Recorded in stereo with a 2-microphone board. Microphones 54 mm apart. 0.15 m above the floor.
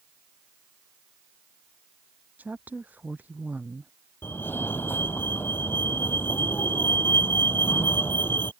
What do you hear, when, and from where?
2.4 s a woman speaking: 35° right (ahead or behind)
4.2 s a fire alarm: 40° left (ahead or behind)